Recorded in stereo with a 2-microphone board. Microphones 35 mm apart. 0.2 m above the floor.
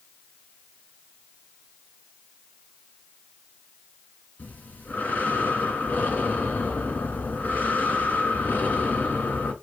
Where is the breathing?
55° left (ahead or behind), 2.5 m.